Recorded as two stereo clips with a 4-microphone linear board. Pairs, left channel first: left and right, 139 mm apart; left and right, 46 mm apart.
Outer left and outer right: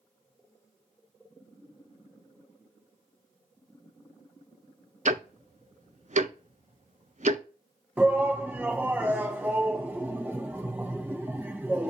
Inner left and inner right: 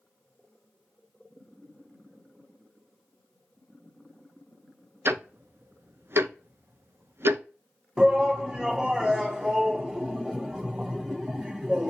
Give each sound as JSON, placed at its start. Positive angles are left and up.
{"t": 5.0, "sound": "ticking", "side_deg": -60, "distance_m": 0.5}
{"t": 8.0, "sound": "a shout", "side_deg": -10, "distance_m": 1.2}